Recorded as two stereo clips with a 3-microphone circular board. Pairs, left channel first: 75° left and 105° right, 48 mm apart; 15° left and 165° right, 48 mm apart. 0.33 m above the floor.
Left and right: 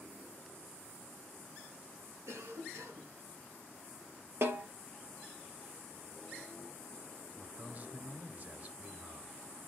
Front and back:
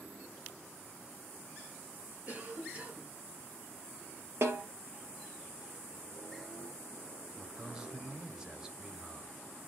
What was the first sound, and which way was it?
A cough, 110° right.